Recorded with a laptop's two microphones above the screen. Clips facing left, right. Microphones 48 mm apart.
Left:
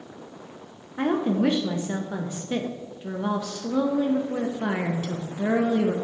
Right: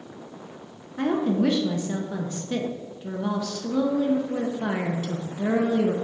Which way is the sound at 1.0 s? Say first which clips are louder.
Even; 15° left (ahead or behind).